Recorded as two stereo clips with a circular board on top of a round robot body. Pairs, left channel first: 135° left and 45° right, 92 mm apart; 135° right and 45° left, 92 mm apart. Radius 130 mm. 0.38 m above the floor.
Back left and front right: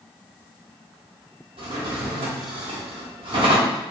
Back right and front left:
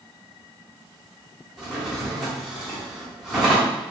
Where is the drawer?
40° right, 1.2 m.